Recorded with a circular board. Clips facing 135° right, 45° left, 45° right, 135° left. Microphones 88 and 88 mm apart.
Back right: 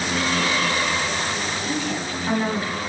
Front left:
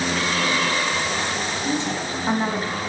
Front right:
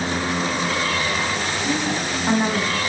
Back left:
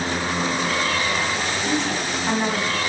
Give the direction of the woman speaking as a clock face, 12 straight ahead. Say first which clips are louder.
Front left 3 dB, front right 1 dB; 11 o'clock.